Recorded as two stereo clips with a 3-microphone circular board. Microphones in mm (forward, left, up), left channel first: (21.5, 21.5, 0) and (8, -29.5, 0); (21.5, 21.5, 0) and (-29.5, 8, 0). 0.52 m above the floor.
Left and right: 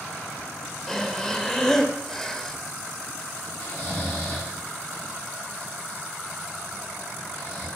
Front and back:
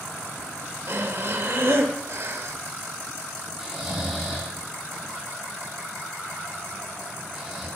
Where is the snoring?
115° left, 2 m.